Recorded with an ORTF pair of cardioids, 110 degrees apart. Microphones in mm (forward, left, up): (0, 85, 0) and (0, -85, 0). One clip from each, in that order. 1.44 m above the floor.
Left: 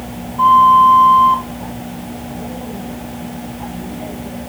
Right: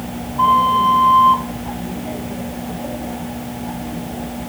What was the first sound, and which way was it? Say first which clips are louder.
A flute: left 6 dB; straight ahead.